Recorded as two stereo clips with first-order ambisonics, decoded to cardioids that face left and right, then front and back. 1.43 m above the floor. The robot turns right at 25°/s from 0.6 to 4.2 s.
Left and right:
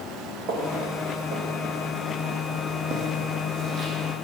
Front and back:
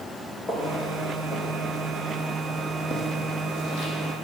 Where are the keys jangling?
I don't hear keys jangling.